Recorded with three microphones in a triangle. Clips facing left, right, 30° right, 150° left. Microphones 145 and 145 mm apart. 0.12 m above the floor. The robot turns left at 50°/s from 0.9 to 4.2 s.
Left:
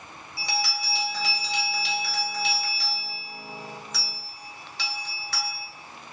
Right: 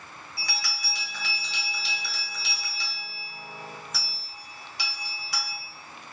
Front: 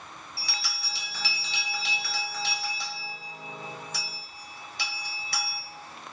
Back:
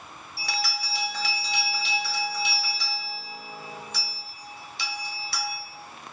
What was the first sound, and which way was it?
A bell, 150° left.